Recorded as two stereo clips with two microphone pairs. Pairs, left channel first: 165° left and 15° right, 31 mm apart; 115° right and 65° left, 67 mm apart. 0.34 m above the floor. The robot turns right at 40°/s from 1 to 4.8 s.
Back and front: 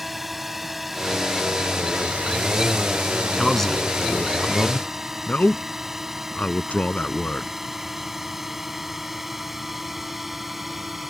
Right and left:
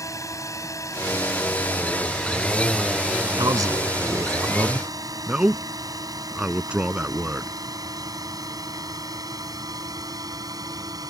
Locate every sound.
0.0 s a drone: 95° right; by 11.1 s 70° left
3.4 s a man speaking: 80° left; by 7.5 s 135° left